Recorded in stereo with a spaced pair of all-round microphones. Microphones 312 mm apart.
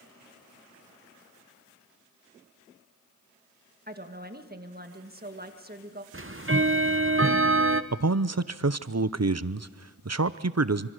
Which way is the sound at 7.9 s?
55° right (ahead or behind).